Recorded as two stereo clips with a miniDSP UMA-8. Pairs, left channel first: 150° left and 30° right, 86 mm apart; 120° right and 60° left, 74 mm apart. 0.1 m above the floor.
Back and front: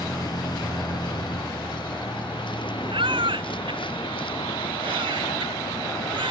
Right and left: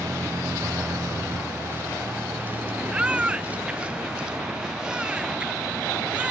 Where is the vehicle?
110° left; by 6.3 s 150° left.